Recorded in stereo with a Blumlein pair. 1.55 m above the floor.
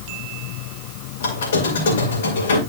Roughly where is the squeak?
Ahead left.